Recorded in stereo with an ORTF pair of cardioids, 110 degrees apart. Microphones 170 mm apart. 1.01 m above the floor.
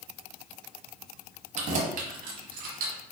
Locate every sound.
1.6 s keys jangling: 45° right, 1.0 m; by 3.0 s 70° right, 1.6 m